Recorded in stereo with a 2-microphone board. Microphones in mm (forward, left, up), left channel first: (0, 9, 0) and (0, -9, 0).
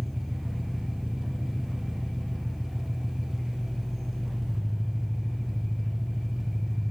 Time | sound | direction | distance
0.0 | an engine running | 25° right (ahead or behind) | 2 m